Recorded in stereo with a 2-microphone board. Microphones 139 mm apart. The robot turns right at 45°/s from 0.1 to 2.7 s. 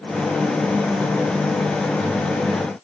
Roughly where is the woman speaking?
No woman speaking in this recording.